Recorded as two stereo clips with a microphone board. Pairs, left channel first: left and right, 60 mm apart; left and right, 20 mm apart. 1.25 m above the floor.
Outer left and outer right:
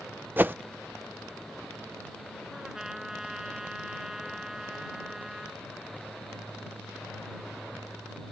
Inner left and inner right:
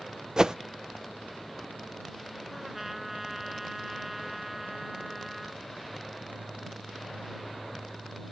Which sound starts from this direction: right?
A whoosh, at 0.4 s.